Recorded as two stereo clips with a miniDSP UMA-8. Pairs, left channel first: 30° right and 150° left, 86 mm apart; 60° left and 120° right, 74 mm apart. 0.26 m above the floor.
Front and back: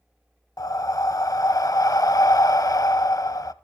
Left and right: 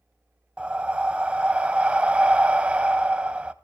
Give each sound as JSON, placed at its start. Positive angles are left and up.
{"t": 0.6, "sound": "breathing", "azimuth_deg": -55, "distance_m": 0.5}